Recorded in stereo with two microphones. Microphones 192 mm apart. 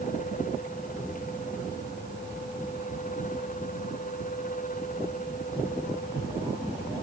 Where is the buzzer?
No buzzer in this recording.